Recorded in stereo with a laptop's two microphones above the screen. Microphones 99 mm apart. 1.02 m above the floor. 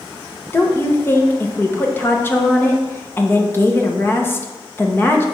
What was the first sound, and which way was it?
A woman speaking, 25° left (ahead or behind).